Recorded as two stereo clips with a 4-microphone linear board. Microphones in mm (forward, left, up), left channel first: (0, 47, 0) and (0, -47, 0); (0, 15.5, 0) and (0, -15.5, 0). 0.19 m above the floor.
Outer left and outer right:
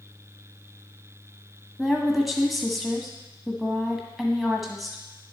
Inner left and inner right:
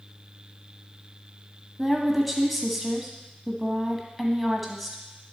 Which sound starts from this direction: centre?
A woman speaking, at 1.8 s.